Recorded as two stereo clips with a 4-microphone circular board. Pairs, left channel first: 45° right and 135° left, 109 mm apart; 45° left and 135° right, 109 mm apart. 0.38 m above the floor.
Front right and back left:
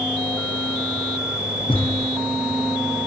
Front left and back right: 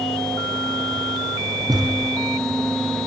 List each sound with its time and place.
1.7 s a thud: 80° right, 5 m